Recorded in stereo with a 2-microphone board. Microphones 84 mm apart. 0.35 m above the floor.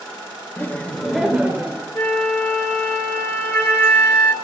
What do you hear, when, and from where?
0.6 s laughter: 25° left (ahead or behind), 1.2 m; by 1.9 s 25° right (ahead or behind), 1.3 m
1.9 s a flute: 30° left (ahead or behind), 1.6 m